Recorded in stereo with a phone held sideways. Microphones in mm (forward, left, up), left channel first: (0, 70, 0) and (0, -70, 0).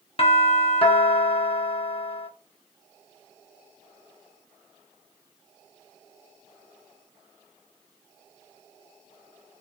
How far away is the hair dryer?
No hair dryer in this recording.